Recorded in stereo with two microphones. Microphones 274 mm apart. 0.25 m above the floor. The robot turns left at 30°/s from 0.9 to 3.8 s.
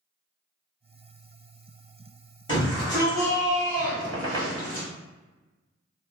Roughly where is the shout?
Centre.